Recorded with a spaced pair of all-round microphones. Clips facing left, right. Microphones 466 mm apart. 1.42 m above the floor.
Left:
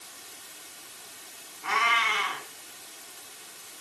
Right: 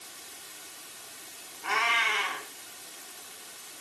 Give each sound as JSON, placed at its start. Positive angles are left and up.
{"t": 1.6, "sound": "a cat meowing", "side_deg": 30, "distance_m": 4.0}